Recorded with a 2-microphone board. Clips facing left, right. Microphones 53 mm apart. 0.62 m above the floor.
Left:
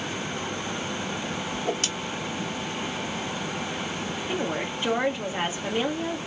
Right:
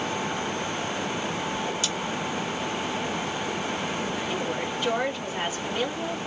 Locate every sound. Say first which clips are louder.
1.5 s a whoosh: even; 55° left (ahead or behind), 1.1 m
4.3 s a woman speaking: even; 25° left (ahead or behind), 1.4 m